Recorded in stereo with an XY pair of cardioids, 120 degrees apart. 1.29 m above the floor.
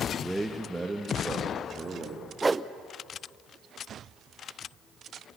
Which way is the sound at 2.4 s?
15° right.